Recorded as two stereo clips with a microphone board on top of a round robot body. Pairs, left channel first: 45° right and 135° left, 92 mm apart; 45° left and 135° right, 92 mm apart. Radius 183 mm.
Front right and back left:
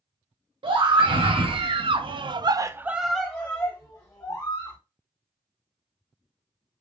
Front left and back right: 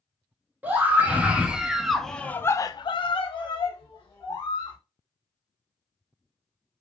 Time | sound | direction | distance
0.6 | a scream | 155° left | 1.2 m